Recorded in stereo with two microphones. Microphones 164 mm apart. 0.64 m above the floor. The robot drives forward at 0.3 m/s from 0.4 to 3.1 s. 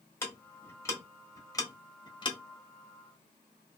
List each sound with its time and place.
0.2 s ticking: 15° left (ahead or behind), 1.1 m; by 2.4 s 30° left (ahead or behind), 0.5 m